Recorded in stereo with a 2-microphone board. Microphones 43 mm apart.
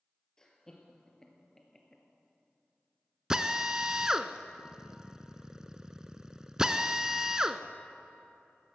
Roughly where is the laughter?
Centre.